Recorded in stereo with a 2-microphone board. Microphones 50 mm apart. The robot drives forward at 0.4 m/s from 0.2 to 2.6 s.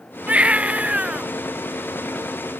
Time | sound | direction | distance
0.3 | a baby crying | 25° right (ahead or behind) | ?